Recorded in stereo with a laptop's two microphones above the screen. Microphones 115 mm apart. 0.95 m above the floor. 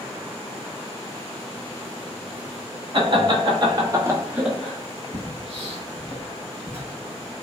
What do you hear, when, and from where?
2.9 s laughter: 50° right (ahead or behind), 1.3 m; by 6.1 s 60° left (ahead or behind), 1.1 m
5.1 s footsteps: 5° left (ahead or behind), 1.2 m; by 7.4 s 25° right (ahead or behind), 1.1 m